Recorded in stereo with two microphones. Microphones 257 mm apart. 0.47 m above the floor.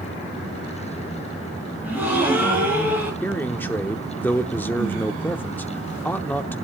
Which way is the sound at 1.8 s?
5° right (ahead or behind).